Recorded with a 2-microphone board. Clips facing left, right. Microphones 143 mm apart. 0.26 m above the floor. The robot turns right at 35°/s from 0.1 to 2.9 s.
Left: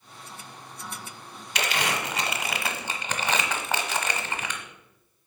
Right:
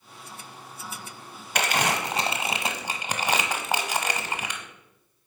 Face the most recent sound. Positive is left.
turn(degrees=-10)  # may be behind; listen again after turning